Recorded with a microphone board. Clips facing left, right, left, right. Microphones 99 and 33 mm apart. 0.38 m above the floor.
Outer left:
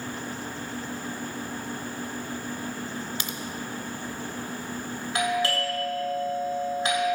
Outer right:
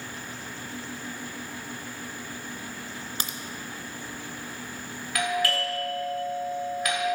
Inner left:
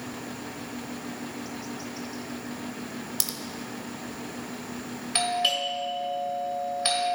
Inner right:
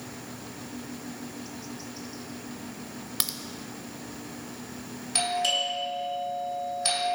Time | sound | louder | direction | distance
3.2 | a crack | outer left 1 dB, inner right 5 dB | 40° right (ahead or behind) | 0.7 m
5.2 | a doorbell | outer left 1 dB, inner left 1 dB | 30° left (ahead or behind) | 2.5 m